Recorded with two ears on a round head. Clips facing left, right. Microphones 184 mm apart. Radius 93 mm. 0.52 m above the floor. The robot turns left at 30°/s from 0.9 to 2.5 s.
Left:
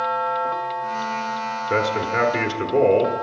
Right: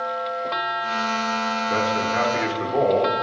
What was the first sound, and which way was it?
A man speaking, 30° left (ahead or behind).